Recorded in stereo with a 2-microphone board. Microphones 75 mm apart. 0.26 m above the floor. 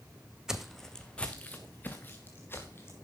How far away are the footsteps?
About 0.9 m.